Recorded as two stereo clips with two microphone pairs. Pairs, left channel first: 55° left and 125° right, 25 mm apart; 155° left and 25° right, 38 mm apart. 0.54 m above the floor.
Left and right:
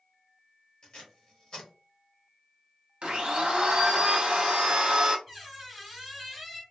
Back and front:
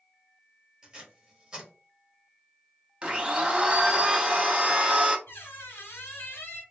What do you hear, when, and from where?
0.8 s tape being pulled: 40° left, 1.4 m
3.0 s a blender: 85° right, 0.6 m
5.3 s a squeak: 160° left, 0.8 m